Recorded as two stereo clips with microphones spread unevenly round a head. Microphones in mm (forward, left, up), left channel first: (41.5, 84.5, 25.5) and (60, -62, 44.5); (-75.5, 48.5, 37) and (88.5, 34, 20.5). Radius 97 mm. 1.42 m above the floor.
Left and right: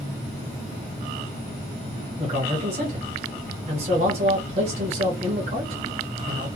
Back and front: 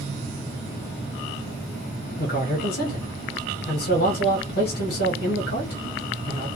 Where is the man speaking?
140° right, 1.2 m.